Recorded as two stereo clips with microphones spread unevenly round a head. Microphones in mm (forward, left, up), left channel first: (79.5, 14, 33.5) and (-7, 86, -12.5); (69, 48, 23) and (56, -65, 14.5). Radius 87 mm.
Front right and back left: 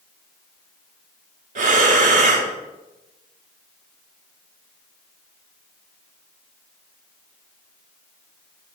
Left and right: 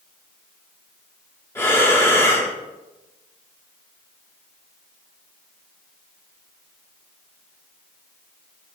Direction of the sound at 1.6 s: 145° left.